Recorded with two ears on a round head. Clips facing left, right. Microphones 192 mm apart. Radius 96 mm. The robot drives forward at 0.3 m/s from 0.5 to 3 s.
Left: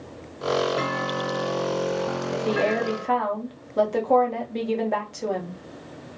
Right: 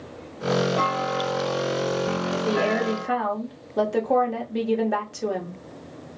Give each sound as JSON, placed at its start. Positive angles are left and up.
{"t": 0.8, "sound": "a clunk", "side_deg": 20, "distance_m": 1.1}
{"t": 2.3, "sound": "a woman speaking", "side_deg": -5, "distance_m": 0.6}